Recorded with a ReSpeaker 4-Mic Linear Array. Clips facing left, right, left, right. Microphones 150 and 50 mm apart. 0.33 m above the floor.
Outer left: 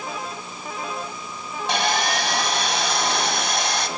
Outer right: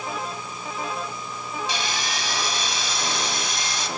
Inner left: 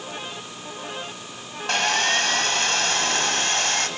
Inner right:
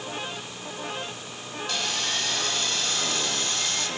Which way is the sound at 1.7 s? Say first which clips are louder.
Outer left 11 dB, inner left 9 dB; 60° left (ahead or behind).